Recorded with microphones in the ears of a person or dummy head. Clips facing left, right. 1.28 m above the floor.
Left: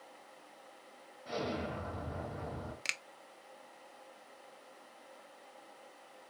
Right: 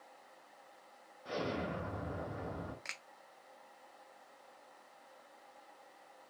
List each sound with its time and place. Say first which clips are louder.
1.2 s an explosion: left 1 dB; 60° right (ahead or behind), 2.5 m
2.9 s a finger snap: left 4 dB; 40° left (ahead or behind), 0.5 m